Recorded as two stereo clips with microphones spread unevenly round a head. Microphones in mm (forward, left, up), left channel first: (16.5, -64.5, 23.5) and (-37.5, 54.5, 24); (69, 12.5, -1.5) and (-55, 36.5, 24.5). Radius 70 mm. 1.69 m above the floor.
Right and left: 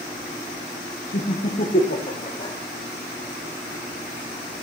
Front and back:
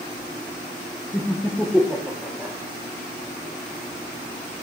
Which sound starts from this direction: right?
Laughter, at 1.1 s.